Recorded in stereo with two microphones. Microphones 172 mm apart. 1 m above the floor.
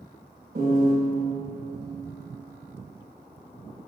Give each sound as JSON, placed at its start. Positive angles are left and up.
{"t": 0.6, "sound": "a piano", "side_deg": -65, "distance_m": 5.0}